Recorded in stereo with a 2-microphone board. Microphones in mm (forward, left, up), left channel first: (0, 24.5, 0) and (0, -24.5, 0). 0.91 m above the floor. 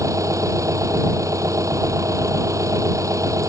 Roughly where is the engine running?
Right.